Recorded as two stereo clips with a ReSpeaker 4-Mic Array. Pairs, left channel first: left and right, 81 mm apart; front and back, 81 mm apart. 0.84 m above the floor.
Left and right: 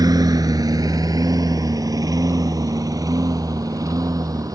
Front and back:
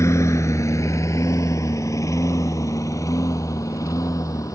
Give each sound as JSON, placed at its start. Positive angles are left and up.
{"t": 0.0, "sound": "a lawn mower", "azimuth_deg": -55}